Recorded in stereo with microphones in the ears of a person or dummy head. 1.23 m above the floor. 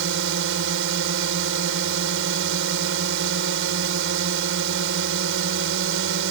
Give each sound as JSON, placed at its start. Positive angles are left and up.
{"t": 0.0, "sound": "a drone", "side_deg": -65}